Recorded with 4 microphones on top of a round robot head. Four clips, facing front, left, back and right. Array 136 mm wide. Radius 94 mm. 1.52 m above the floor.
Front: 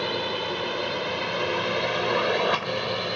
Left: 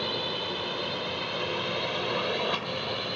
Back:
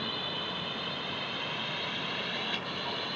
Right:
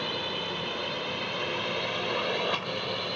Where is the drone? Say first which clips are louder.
Left 1 dB, front 9 dB; 10° left; by 3.2 s straight ahead.